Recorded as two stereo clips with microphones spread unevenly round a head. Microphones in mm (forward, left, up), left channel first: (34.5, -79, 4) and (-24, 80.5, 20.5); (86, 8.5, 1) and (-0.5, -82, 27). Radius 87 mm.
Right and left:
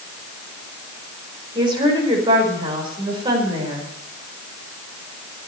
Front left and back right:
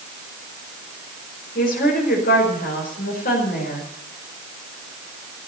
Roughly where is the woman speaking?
Ahead left.